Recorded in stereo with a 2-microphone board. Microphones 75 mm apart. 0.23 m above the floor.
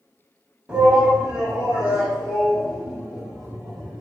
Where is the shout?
15° right (ahead or behind), 1.7 m; by 4.0 s 5° right (ahead or behind), 2 m.